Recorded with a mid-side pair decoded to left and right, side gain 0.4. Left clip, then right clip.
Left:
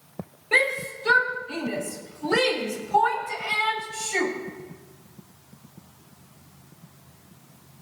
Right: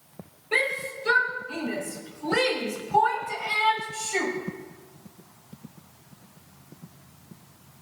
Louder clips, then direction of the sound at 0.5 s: Left 4 dB; 55° left.